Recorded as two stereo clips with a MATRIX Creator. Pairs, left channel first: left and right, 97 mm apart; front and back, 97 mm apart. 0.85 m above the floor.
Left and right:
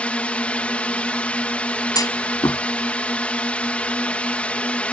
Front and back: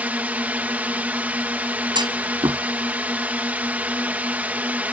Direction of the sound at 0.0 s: 140° left.